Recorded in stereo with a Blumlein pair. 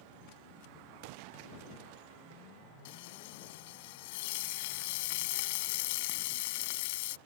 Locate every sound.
2.9 s frying: 50° left